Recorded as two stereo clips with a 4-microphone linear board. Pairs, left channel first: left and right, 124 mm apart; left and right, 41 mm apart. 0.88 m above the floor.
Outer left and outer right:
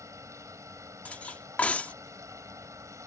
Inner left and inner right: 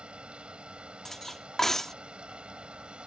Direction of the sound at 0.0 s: 25° right (ahead or behind).